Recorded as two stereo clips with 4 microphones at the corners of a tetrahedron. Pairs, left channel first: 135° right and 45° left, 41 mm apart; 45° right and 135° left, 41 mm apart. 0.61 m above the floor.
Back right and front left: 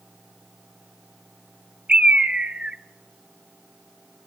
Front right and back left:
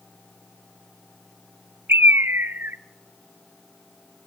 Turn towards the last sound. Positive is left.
turn(degrees=105)